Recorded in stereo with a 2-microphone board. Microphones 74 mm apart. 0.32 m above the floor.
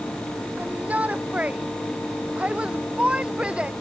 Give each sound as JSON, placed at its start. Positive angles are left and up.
{"t": 0.6, "sound": "a shout", "side_deg": -20}